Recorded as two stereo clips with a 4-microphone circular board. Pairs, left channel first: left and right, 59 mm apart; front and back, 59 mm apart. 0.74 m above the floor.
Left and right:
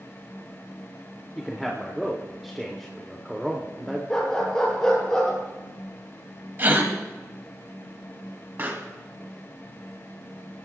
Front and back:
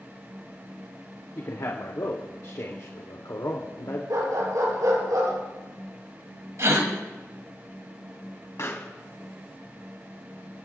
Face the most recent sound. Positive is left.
turn(degrees=-35)